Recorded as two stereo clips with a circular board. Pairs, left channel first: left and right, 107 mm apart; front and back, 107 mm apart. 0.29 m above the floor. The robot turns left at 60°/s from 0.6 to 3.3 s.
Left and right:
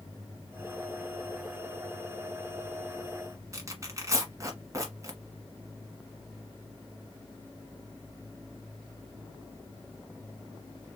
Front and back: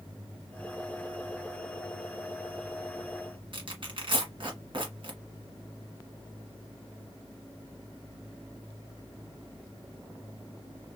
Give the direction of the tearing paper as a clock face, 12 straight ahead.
5 o'clock.